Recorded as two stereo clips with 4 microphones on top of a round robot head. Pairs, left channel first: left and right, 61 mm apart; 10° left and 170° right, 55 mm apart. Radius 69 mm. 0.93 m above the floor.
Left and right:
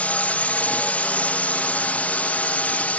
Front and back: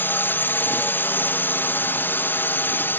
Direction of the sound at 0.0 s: 35° left.